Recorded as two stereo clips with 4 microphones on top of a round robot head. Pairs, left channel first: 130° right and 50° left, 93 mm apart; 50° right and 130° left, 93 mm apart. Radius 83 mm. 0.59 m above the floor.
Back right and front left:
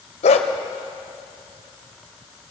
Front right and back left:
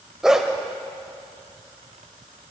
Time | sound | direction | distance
0.2 | a dog barking | 145° right | 0.7 m